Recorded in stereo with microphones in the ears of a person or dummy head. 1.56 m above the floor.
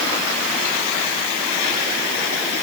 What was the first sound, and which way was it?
Only background noise.